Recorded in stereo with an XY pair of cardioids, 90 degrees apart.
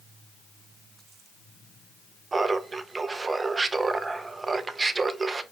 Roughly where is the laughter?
Ahead right.